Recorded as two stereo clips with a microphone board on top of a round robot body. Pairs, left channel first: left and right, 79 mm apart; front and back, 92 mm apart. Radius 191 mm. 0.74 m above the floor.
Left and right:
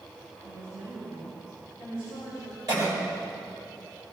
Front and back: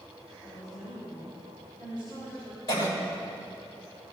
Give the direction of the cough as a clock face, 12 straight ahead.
2 o'clock.